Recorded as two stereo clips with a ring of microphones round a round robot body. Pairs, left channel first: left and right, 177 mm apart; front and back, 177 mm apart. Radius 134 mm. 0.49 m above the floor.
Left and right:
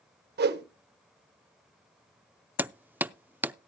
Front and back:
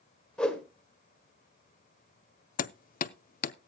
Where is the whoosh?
85° right, 1.3 m.